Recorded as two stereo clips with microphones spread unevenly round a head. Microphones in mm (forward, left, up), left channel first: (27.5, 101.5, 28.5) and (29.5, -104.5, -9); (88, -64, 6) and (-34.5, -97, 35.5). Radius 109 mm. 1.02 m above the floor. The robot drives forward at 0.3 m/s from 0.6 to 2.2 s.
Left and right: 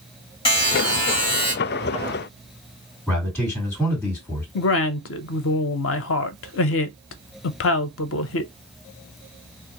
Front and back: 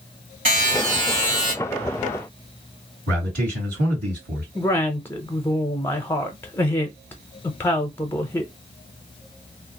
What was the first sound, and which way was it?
A buzzer, 160° left.